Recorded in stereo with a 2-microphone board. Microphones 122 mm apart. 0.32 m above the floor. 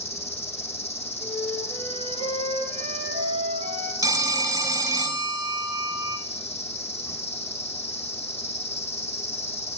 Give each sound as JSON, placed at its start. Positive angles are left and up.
{"t": 0.0, "sound": "an insect", "side_deg": 60, "distance_m": 3.0}
{"t": 1.2, "sound": "a flute", "side_deg": -65, "distance_m": 2.5}
{"t": 4.0, "sound": "a phone ringing", "side_deg": -30, "distance_m": 0.7}